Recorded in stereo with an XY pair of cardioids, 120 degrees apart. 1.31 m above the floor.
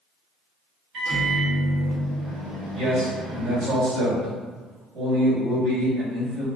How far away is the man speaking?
About 1.7 m.